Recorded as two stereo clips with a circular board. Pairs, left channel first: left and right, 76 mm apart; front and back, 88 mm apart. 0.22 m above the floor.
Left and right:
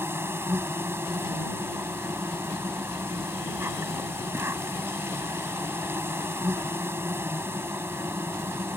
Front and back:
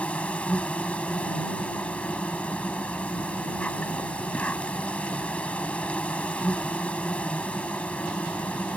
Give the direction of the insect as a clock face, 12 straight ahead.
2 o'clock.